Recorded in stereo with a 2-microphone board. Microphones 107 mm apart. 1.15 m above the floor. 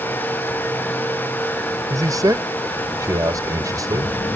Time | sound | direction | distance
1.9 | a man speaking | 30° right (ahead or behind) | ?